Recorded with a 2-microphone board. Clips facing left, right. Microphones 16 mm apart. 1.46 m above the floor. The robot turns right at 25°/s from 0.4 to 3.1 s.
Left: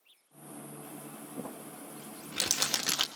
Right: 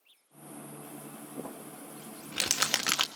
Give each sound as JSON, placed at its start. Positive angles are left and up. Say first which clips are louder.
{"t": 1.4, "sound": "crumpling", "louder": "even", "side_deg": -55, "distance_m": 1.4}